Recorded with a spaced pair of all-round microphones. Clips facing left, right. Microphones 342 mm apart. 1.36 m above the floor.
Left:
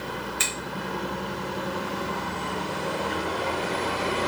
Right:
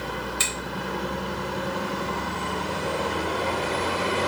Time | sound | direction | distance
0.4 | a finger snap | 50° right (ahead or behind) | 1.6 m